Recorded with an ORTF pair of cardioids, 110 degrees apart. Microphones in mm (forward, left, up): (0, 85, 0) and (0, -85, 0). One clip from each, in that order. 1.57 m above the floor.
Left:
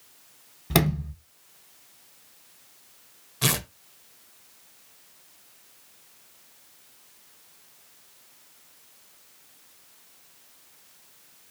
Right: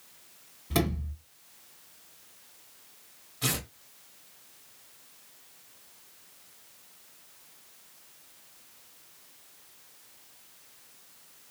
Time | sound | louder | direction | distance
0.7 | a sliding door | left 5 dB | 60° left | 1.3 m
3.4 | tearing paper | left 6 dB | 45° left | 0.8 m